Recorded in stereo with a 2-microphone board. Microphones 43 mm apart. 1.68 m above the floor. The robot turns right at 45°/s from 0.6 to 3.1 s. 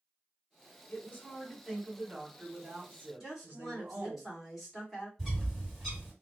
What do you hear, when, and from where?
0.9 s a woman speaking: 130° left, 1.3 m; by 4.2 s 130° right, 1.3 m
3.2 s a woman speaking: 10° right (ahead or behind), 1.8 m
5.2 s a bird: centre (ahead or behind), 2 m